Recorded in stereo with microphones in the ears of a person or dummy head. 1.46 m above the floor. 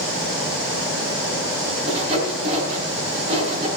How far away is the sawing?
About 4.5 m.